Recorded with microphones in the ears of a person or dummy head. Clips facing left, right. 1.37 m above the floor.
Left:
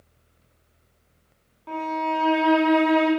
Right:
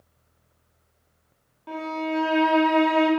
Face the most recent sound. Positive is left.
turn(degrees=-5)  # may be behind; listen again after turning